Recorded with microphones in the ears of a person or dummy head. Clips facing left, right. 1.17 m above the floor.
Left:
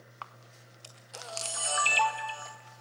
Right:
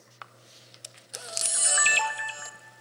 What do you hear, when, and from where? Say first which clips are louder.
0.2 s a camera shutter: left 1 dB; 15° right (ahead or behind), 0.7 m